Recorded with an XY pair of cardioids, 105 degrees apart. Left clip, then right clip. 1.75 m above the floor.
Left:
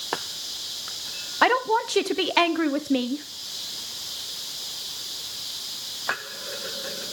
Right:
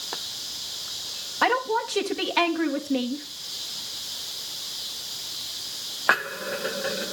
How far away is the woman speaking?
About 1.2 m.